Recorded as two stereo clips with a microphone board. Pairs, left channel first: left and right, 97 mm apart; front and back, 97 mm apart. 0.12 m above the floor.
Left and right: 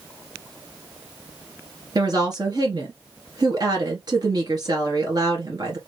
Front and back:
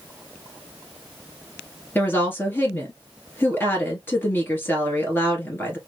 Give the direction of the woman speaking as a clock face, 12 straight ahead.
2 o'clock.